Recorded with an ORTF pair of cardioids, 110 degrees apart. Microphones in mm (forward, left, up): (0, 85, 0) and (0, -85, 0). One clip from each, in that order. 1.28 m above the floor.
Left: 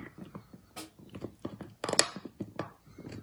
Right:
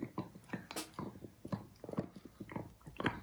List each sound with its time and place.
0.8 s a snare drum: 60° right, 1.9 m